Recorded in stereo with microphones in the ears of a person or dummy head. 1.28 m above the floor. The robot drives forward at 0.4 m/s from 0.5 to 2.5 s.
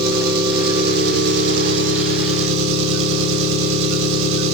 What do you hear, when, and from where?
0.0 s an engine running: 55° right (ahead or behind), 1.5 m; by 4.5 s 85° right, 1.2 m